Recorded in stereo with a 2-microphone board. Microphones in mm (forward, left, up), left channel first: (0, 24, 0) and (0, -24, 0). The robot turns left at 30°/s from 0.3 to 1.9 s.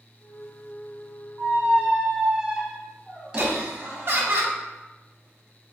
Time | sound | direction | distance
1.4 | a squeak | 30° right (ahead or behind) | 0.7 m
3.4 | laughter | 50° right (ahead or behind) | 0.7 m